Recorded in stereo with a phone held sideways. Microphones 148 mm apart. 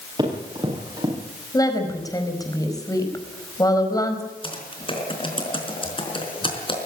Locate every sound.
0.2 s running footsteps: 30° right (ahead or behind), 9.5 m
1.5 s a woman speaking: 25° left (ahead or behind), 5 m
4.4 s typing on a keyboard: 35° left (ahead or behind), 4.5 m